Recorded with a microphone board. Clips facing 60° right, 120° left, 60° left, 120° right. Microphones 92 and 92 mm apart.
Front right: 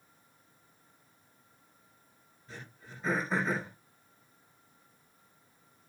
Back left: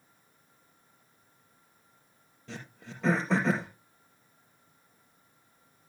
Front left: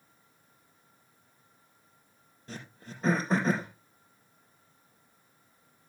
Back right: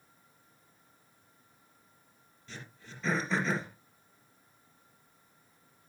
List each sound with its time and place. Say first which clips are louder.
2.5 s throat clearing: back left 5 dB, front left 4 dB; 110° left, 4 m